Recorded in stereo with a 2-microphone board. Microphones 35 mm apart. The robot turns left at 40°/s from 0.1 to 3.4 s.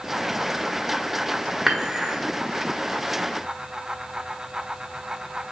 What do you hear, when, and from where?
1.7 s dishes clattering: 5° right (ahead or behind), 1.3 m; by 2.1 s 25° right (ahead or behind), 1.3 m